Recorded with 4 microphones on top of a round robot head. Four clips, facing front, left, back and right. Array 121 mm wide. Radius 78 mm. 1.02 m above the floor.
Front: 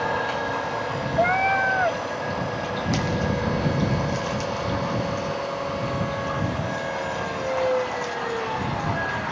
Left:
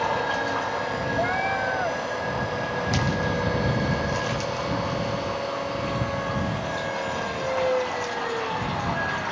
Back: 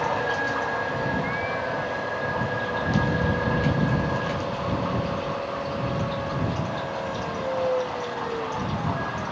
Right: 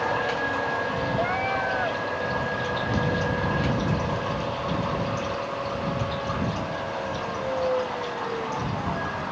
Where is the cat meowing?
5° left.